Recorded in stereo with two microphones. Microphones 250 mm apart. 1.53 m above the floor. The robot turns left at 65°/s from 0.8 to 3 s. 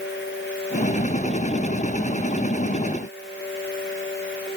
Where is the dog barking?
I don't hear a dog barking.